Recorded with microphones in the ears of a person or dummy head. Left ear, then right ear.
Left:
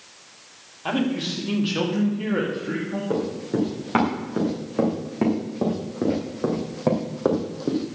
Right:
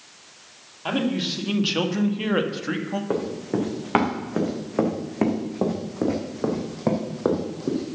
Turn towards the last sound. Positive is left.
turn(degrees=20)  # may be behind; listen again after turning